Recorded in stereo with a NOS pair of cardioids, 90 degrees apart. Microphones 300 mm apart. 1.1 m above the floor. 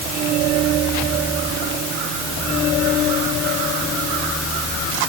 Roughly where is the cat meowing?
No cat meowing in this recording.